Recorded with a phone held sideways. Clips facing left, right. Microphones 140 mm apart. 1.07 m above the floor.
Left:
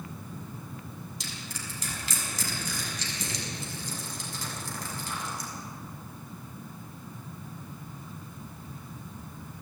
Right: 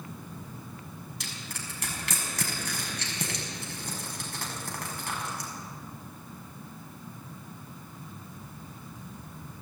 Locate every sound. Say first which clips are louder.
1.2 s crushing: left 1 dB; 65° right (ahead or behind), 6 m